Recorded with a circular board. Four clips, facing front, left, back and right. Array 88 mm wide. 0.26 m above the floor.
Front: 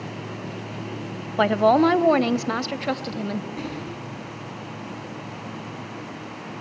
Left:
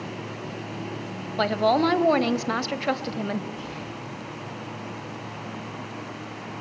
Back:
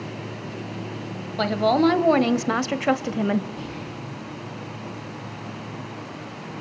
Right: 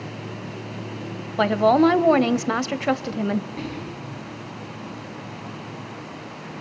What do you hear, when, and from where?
1.4 s a woman speaking: 30° right, 1.2 m; by 3.5 s 170° right, 1.3 m
3.6 s whispering: 50° right, 5.5 m